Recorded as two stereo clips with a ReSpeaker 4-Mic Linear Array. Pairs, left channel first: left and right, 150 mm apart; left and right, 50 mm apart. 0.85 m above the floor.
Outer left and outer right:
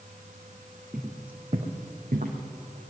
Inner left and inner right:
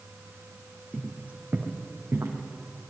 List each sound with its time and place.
0.9 s footsteps: 20° right (ahead or behind), 2 m; by 2.4 s 65° right (ahead or behind), 2.5 m